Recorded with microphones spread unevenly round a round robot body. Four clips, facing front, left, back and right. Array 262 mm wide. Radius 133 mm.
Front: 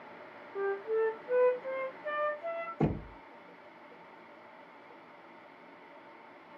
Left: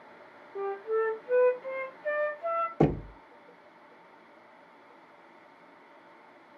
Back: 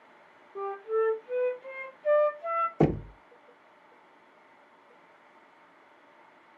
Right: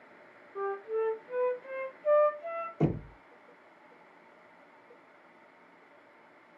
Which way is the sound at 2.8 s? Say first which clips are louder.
Left 4 dB, back 6 dB; 130° left.